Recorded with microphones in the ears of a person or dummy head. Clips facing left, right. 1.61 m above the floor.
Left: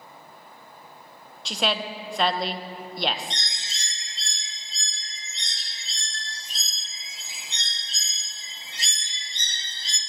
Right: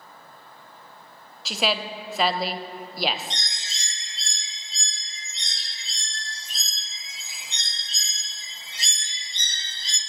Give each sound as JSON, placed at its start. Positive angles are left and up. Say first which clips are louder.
{"t": 1.4, "sound": "a woman speaking", "louder": "right 1 dB", "side_deg": -5, "distance_m": 0.5}
{"t": 3.3, "sound": "a bird", "louder": "even", "side_deg": -75, "distance_m": 1.6}